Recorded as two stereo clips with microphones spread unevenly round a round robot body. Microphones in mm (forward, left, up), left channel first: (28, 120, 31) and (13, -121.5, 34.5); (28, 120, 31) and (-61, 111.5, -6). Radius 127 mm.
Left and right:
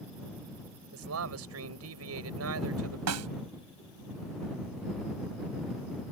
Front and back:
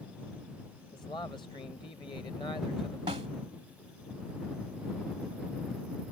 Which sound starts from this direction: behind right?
A snare drum, at 3.1 s.